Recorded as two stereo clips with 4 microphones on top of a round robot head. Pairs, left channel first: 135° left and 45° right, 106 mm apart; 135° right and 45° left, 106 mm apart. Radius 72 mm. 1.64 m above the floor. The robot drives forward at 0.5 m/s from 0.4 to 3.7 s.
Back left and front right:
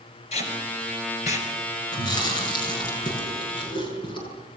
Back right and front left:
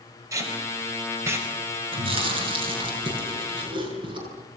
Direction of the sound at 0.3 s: 105° left.